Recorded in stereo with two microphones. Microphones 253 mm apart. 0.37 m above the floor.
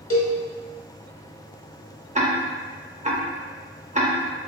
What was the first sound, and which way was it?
A cowbell, 55° left (ahead or behind).